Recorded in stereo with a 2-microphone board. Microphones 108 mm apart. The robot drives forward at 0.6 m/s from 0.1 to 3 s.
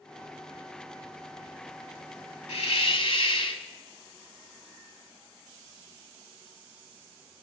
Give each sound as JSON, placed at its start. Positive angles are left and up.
{"t": 2.5, "sound": "a hiss", "side_deg": 80, "distance_m": 1.2}